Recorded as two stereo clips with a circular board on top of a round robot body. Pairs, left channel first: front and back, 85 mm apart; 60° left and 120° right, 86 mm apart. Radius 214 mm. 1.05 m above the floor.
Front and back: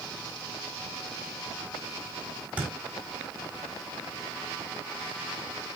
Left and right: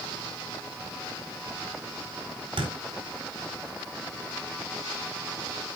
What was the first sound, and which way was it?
A thud, 110° right.